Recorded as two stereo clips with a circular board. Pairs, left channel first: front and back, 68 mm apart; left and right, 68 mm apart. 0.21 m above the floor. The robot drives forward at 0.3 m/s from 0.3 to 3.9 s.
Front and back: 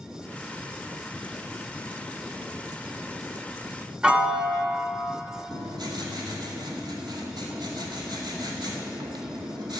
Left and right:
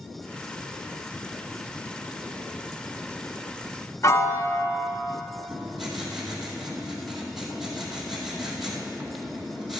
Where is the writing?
Straight behind, 2 m.